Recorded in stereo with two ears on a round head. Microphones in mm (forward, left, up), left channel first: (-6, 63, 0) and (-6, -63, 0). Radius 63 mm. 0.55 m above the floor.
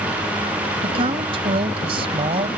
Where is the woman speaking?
40° right (ahead or behind).